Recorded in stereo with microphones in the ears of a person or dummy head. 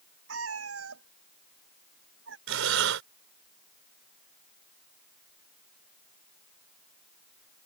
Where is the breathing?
80° right.